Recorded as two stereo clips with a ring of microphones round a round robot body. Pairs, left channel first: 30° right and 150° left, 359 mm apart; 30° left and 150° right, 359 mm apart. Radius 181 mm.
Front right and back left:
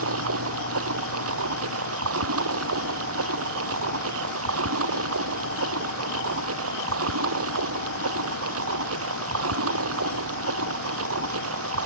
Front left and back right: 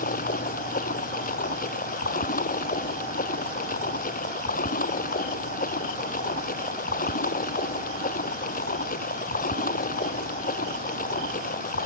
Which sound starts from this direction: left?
Running water, at 0.0 s.